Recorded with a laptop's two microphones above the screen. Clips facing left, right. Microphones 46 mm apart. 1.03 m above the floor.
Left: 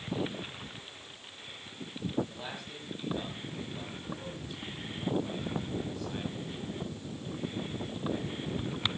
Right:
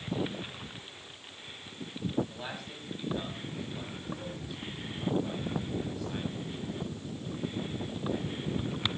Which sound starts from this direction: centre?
A man speaking, at 2.3 s.